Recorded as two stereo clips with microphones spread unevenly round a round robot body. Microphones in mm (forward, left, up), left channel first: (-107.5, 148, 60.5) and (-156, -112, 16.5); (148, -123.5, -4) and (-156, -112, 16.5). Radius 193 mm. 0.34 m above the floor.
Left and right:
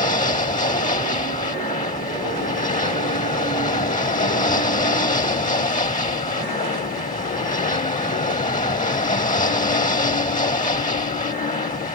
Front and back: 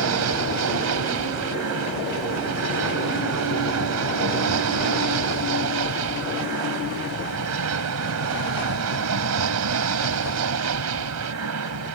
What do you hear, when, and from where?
0.0 s an aircraft: 140° left